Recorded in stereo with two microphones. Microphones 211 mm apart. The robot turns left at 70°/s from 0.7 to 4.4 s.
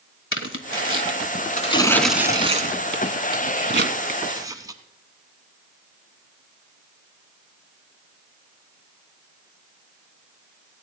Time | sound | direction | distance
0.3 | tearing paper | 75° left (ahead or behind) | 1.0 m